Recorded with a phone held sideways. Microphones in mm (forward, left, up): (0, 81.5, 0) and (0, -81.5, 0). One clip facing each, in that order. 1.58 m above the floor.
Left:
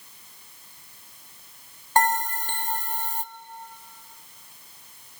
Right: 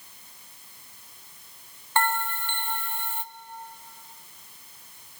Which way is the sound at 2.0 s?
40° left (ahead or behind).